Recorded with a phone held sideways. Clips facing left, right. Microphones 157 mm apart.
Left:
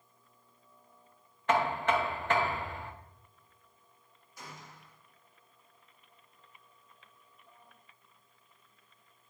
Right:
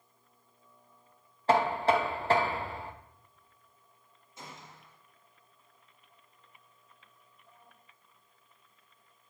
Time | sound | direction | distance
1.5 | knocking | 35° right (ahead or behind) | 0.9 m
4.4 | a gunshot | 25° right (ahead or behind) | 1.1 m